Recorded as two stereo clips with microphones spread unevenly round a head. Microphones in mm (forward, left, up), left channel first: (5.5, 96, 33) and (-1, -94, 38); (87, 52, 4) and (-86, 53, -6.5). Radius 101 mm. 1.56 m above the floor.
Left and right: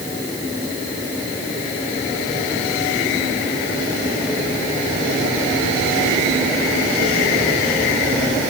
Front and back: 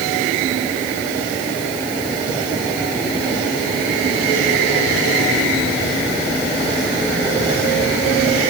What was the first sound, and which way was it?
Only background noise.